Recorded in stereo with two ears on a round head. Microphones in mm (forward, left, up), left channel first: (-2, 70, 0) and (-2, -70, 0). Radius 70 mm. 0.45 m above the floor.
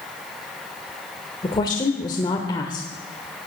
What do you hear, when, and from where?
1.4 s a woman speaking: 25° left (ahead or behind), 1.3 m